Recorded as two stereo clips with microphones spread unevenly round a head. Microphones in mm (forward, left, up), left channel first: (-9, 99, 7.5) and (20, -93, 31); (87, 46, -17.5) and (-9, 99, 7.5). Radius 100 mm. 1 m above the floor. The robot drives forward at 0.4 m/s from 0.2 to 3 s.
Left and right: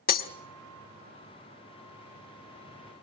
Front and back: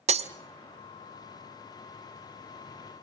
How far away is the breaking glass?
About 0.9 m.